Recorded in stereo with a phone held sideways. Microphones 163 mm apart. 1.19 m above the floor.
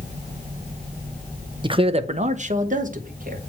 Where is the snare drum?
No snare drum in this recording.